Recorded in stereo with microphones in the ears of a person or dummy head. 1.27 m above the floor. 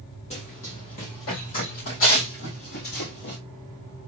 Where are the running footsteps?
35° left (ahead or behind), 2 m; by 3.4 s 55° left (ahead or behind), 3.5 m.